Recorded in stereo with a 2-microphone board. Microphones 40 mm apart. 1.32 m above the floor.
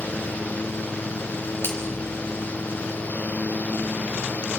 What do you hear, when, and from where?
1.6 s a finger snap: 55° left (ahead or behind), 5.5 m